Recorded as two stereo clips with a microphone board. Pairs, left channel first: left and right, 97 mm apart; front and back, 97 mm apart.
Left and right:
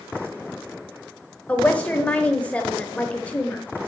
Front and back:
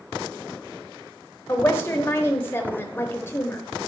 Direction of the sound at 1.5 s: 30° left.